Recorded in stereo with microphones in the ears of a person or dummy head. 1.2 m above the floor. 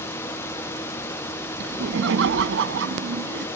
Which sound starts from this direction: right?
Laughter, at 1.6 s.